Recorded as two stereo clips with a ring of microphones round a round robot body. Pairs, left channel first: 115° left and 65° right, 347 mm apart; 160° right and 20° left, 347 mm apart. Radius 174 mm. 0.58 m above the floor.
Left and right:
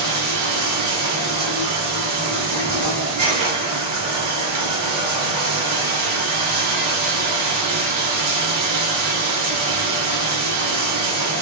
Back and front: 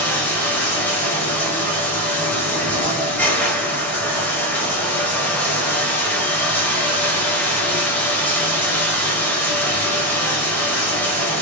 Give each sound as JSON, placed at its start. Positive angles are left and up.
{"t": 0.0, "sound": "running water", "azimuth_deg": -75, "distance_m": 1.1}